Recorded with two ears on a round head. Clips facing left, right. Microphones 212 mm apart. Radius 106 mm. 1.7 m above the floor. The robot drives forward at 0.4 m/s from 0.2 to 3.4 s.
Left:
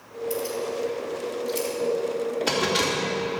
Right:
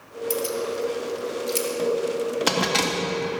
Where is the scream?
No scream in this recording.